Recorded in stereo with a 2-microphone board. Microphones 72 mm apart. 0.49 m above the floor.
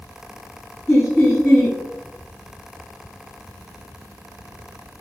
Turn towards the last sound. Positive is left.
turn(degrees=20)  # may be behind; listen again after turning